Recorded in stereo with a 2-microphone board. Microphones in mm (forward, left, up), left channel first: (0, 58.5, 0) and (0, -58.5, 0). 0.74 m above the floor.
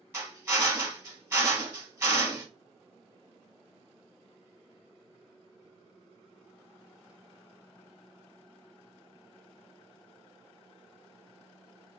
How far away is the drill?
About 1.1 m.